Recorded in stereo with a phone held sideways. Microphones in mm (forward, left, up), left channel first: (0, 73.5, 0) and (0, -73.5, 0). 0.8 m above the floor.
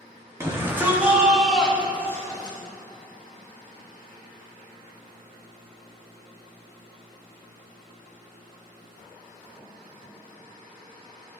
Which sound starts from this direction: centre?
A shout, at 0.4 s.